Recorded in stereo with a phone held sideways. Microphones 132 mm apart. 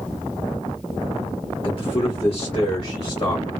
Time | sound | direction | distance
1.6 | a man speaking | 40° left (ahead or behind) | 1.1 m